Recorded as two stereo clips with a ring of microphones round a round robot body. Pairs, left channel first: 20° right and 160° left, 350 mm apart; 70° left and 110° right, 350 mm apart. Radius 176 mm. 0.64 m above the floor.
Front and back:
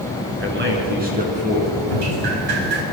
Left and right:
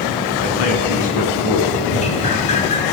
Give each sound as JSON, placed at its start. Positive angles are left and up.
{"t": 0.4, "sound": "a man speaking", "azimuth_deg": 100, "distance_m": 6.5}
{"t": 1.9, "sound": "dripping", "azimuth_deg": 140, "distance_m": 4.5}